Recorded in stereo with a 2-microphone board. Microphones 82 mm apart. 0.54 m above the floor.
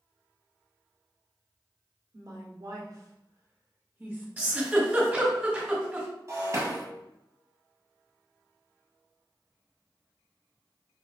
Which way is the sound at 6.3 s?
40° right (ahead or behind).